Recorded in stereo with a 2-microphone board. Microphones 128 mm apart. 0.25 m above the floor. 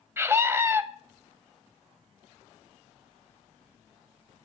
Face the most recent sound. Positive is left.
turn(degrees=-20)  # may be behind; listen again after turning